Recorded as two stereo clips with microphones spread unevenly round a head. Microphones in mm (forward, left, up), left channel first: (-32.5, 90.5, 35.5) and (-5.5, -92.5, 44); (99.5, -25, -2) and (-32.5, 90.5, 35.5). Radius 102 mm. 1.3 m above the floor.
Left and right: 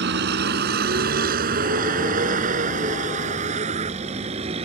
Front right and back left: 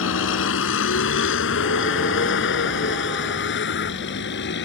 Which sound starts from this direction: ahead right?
A vehicle, at 0.0 s.